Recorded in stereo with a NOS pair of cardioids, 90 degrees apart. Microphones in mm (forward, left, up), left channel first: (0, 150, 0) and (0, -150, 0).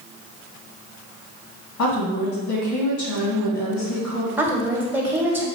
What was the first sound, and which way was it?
A woman speaking, 70° left.